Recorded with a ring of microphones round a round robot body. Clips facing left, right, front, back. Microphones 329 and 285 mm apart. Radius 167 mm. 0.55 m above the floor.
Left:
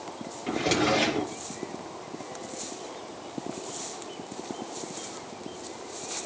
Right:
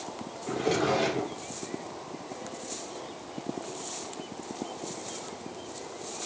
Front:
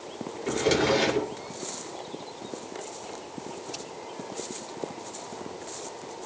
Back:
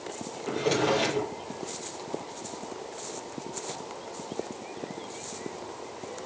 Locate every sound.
0.5 s a drawer: 50° left, 4 m